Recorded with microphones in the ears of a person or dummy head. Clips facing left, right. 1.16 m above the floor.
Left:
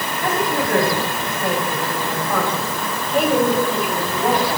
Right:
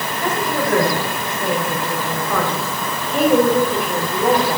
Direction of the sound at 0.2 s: 80° right.